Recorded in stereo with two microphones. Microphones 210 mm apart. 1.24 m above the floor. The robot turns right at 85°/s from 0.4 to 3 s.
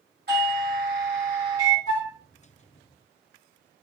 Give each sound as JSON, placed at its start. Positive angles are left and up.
{"t": 0.3, "sound": "a doorbell", "azimuth_deg": -120, "distance_m": 2.5}
{"t": 1.9, "sound": "a flute", "side_deg": 30, "distance_m": 2.5}